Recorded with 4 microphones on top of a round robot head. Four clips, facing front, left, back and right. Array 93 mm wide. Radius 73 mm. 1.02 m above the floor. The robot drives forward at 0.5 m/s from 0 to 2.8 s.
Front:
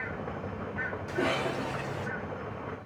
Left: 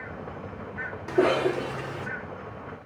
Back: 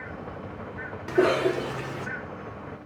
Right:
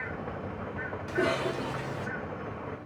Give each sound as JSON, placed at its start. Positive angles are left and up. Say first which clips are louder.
{"t": 1.1, "sound": "a cough", "louder": "left 7 dB, back 9 dB", "azimuth_deg": 150, "distance_m": 2.5}